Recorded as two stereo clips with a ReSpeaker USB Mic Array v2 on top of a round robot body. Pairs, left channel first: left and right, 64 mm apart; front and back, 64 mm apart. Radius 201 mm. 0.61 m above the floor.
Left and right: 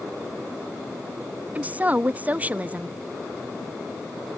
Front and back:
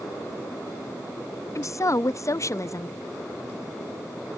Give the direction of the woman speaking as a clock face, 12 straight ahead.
1 o'clock.